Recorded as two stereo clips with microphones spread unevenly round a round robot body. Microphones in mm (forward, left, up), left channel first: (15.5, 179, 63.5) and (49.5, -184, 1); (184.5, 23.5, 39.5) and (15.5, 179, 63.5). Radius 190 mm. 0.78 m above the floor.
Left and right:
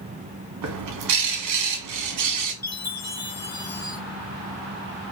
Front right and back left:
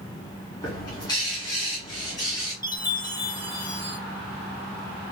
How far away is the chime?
About 1.9 m.